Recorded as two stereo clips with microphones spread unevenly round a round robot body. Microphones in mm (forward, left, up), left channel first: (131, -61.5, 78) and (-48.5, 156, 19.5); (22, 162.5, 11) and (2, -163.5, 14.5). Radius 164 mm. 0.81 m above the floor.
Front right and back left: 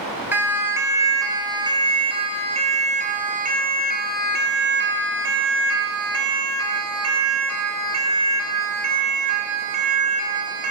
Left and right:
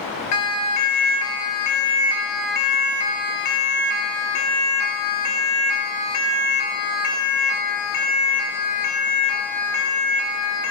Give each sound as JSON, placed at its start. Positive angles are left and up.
{"t": 0.3, "sound": "a siren", "azimuth_deg": 50, "distance_m": 4.5}